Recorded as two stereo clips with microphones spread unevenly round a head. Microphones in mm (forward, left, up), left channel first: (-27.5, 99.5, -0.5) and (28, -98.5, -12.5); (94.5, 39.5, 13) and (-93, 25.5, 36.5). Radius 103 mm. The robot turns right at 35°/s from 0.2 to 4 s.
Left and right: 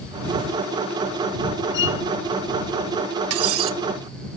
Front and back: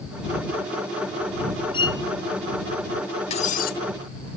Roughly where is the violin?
Left.